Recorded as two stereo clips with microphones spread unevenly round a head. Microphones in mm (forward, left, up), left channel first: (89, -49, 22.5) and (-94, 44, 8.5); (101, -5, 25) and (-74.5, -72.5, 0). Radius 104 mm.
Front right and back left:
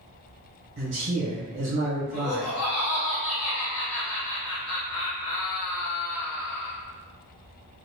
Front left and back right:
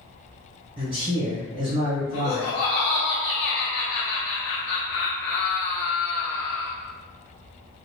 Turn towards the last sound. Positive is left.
turn(degrees=-10)